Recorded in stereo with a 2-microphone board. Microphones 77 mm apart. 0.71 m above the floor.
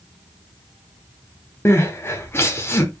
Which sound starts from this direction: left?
Crying, at 1.6 s.